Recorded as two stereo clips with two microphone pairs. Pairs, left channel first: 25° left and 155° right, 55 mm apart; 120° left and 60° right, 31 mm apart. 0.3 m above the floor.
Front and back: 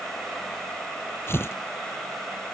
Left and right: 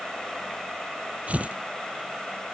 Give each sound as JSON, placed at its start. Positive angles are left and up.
{"t": 1.3, "sound": "tearing paper", "azimuth_deg": -20}